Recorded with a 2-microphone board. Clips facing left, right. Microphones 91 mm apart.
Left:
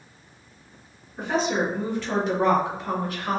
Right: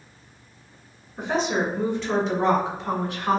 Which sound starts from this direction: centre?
A woman speaking, at 1.2 s.